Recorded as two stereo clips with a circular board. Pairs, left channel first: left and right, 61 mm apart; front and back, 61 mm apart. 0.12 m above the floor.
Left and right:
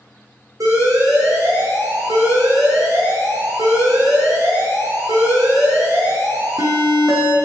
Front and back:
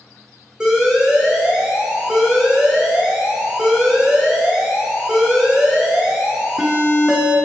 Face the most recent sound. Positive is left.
turn(degrees=-100)